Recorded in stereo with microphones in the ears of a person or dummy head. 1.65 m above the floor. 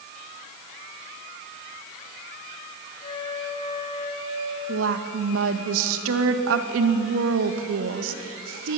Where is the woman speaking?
75° right (ahead or behind), 1.9 m.